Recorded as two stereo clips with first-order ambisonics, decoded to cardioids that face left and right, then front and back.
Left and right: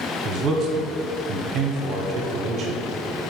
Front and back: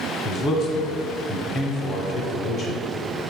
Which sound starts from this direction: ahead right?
A man speaking, at 0.2 s.